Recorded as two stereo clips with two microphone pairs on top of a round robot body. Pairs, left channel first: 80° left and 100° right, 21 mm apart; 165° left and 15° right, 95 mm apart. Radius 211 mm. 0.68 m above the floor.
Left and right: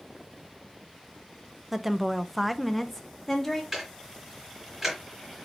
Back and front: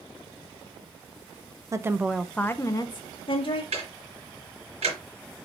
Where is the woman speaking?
35° right, 0.8 m; by 3.6 s 160° left, 1.2 m.